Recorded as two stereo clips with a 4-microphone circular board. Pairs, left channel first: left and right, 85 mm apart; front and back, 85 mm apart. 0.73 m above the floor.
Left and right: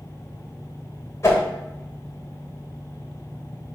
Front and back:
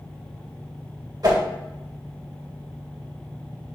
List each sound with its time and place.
1.2 s a whoosh: 145° left, 2 m